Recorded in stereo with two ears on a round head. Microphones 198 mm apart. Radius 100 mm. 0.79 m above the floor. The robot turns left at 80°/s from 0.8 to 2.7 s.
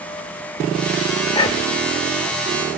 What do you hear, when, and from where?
1.3 s whispering: 15° left (ahead or behind), 2.5 m; by 1.8 s 50° left (ahead or behind), 2.5 m